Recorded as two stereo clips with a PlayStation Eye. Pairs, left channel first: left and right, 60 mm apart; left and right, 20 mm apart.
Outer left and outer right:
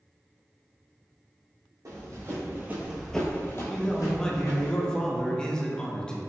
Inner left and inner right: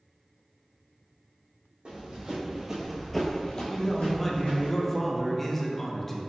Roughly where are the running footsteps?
Right.